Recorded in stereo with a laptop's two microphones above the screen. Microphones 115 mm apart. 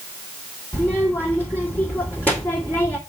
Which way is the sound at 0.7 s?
10° left (ahead or behind).